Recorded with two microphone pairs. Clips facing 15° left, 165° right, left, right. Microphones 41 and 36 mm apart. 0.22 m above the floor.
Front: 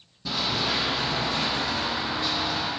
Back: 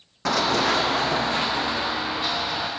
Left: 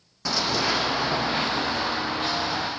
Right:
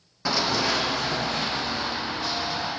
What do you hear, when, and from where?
0.2 s running footsteps: 165° right, 0.7 m; by 2.7 s 125° left, 1.5 m